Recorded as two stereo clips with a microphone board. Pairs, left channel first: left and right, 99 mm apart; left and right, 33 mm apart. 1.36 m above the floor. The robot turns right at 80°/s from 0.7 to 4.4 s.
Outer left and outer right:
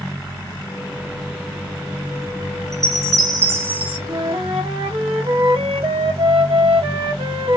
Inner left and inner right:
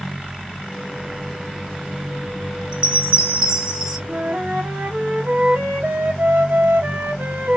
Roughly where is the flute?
Right.